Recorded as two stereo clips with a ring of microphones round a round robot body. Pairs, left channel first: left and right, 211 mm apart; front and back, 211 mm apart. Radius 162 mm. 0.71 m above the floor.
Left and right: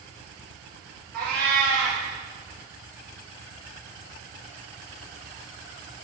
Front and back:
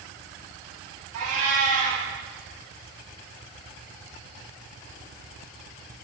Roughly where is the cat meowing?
Behind right.